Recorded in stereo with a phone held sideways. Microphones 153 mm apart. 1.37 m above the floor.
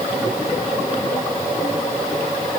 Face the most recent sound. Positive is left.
No sound to turn to.